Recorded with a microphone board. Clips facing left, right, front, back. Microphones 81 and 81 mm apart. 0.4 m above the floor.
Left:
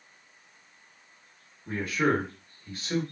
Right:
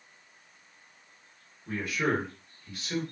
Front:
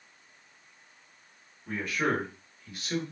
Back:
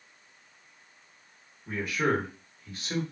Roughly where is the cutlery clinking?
No cutlery clinking in this recording.